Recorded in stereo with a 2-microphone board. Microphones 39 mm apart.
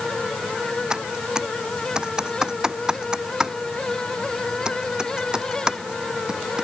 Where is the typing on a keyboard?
20° right (ahead or behind).